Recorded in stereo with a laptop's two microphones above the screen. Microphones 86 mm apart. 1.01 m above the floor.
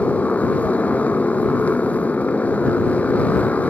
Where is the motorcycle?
15° left (ahead or behind).